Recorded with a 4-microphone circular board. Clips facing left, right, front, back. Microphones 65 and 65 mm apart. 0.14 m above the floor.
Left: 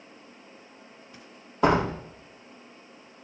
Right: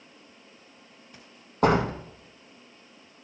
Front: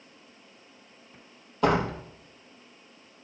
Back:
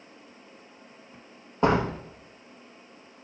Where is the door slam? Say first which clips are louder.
Even, back 1 dB; 120° right, 2.5 m.